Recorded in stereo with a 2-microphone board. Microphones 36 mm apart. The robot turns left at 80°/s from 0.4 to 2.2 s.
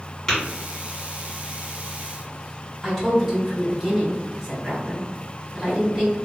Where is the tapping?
15° left (ahead or behind), 1.7 m.